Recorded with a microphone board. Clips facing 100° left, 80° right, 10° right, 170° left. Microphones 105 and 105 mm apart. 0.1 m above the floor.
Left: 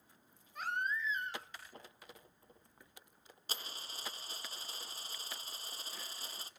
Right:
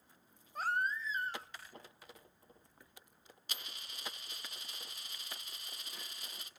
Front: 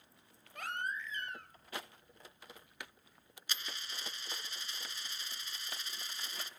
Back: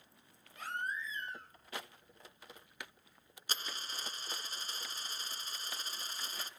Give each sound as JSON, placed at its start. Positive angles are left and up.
{"t": 0.6, "sound": "a baby crying", "azimuth_deg": -30, "distance_m": 2.0}
{"t": 3.5, "sound": "a dropped coin", "azimuth_deg": 140, "distance_m": 0.6}